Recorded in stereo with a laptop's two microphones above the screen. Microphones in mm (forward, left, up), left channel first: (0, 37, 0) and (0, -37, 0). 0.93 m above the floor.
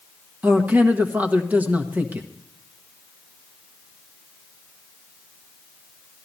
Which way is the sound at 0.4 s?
25° right (ahead or behind).